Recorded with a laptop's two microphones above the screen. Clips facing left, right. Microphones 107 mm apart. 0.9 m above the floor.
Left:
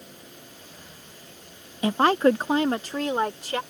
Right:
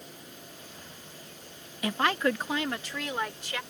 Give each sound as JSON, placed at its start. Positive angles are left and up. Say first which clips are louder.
{"t": 1.8, "sound": "a woman speaking", "louder": "left 8 dB", "side_deg": 30}